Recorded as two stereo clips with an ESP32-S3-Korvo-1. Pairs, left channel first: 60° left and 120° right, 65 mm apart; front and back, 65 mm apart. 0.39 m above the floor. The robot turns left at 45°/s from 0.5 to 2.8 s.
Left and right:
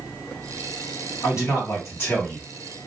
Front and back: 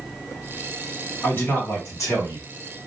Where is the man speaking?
55° left, 1.8 m; by 2.5 s straight ahead, 1.8 m.